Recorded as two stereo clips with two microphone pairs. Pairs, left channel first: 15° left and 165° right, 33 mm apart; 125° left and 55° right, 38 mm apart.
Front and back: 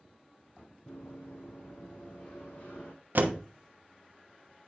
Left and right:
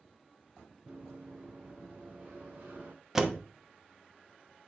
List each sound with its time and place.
0.9 s running footsteps: 5° right, 3.5 m; by 2.9 s 20° right, 3.5 m
3.1 s a door slam: 135° right, 0.9 m